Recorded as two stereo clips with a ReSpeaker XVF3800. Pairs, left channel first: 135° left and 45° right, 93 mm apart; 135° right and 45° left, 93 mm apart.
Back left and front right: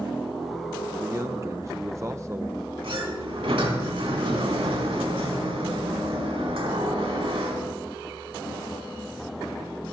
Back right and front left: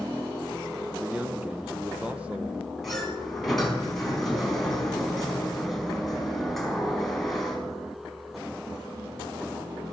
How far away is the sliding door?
About 4 m.